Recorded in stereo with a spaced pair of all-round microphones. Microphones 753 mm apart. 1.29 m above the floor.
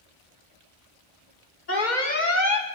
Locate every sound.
1.7 s an alarm: 65° left (ahead or behind), 2.5 m